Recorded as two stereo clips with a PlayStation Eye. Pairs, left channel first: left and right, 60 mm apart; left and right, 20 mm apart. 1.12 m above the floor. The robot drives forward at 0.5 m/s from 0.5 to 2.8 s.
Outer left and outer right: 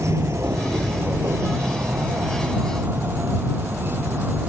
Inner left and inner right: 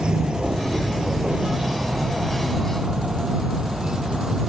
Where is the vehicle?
55° right (ahead or behind); by 4.5 s 35° right (ahead or behind).